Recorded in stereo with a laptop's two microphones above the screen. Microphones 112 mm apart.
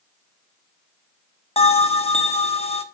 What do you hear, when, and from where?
1.6 s a bell: 70° left (ahead or behind), 1.3 m